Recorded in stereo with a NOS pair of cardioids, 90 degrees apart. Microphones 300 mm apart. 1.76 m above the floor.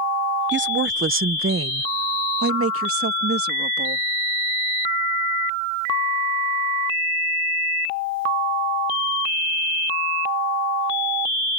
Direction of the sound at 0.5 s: 35° right.